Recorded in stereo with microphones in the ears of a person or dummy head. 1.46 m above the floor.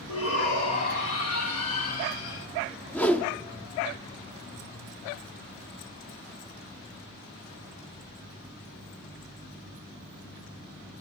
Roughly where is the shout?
Left.